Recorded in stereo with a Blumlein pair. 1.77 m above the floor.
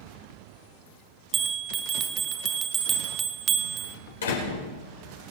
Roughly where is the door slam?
Left.